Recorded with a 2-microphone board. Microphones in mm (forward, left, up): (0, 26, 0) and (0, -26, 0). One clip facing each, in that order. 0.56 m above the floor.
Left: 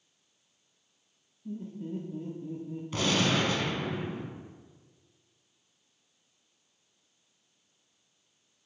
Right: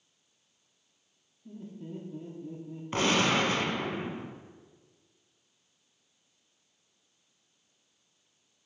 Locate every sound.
1.4 s laughter: centre (ahead or behind), 0.7 m
2.9 s a gunshot: 40° right (ahead or behind), 0.7 m